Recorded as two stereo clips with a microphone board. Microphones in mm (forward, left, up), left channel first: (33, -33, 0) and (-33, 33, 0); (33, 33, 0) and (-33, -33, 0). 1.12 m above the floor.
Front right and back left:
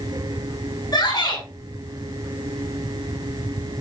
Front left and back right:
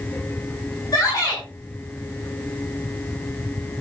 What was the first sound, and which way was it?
A shout, straight ahead.